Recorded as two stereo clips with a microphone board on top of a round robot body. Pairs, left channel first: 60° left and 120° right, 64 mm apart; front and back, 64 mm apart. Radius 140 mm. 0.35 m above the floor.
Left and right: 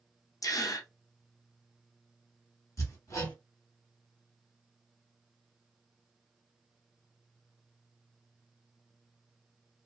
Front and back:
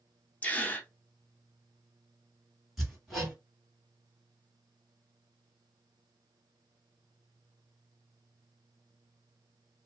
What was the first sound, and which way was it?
A gasp, 60° left.